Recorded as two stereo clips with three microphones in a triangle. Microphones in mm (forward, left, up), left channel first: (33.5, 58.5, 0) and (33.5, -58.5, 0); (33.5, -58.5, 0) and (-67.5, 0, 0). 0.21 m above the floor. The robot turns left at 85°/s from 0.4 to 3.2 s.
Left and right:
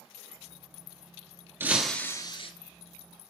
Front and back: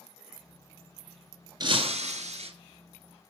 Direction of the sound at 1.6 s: 155° right.